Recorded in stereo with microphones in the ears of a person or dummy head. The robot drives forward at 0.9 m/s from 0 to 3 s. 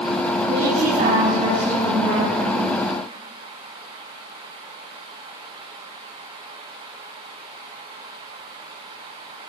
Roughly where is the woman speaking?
Right.